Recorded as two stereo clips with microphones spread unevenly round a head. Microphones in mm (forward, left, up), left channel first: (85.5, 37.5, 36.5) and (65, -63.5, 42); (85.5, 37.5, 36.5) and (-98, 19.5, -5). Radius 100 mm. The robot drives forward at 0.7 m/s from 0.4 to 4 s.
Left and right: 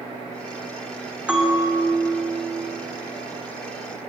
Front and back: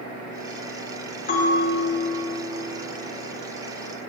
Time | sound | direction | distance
1.3 | a bell | 25° right | 2.5 m